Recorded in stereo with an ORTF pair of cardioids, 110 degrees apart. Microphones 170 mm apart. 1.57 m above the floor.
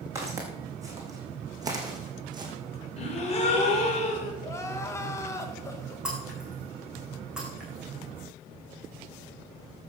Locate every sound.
0.1 s footsteps: 20° right, 5.5 m; by 2.5 s 30° right, 3.5 m
3.0 s a gasp: 40° left, 4 m
4.4 s crying: 15° left, 2.0 m
6.0 s breaking glass: 5° right, 6.5 m